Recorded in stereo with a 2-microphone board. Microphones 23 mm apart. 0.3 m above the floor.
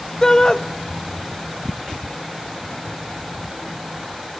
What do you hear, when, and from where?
0.2 s a shout: 25° left (ahead or behind), 1.1 m